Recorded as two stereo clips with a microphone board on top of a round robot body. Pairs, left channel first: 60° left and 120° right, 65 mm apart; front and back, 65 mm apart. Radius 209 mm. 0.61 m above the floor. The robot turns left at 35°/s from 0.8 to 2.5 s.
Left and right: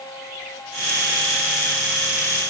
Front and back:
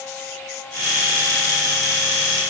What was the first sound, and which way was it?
Only background noise.